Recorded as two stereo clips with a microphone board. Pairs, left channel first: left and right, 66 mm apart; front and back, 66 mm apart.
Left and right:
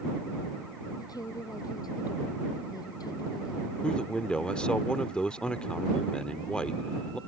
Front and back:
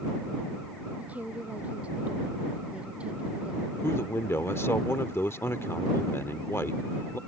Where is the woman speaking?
110° left; by 4.2 s 105° left.